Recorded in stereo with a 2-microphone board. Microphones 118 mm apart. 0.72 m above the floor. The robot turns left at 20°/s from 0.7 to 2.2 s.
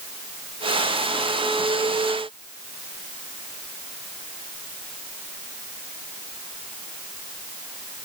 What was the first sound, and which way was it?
Only background noise.